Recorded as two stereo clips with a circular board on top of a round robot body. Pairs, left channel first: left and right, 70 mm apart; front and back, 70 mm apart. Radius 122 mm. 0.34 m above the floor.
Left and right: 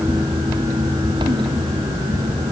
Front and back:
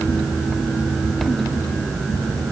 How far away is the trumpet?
No trumpet in this recording.